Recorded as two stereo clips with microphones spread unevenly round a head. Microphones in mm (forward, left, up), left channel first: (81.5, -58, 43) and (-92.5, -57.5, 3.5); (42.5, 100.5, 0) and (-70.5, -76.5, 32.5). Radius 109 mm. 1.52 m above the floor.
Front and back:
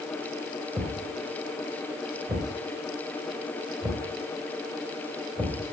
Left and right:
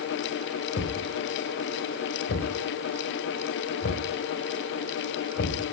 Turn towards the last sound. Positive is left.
turn(degrees=105)